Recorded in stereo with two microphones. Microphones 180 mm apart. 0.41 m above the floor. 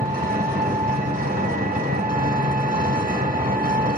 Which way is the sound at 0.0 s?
55° right (ahead or behind).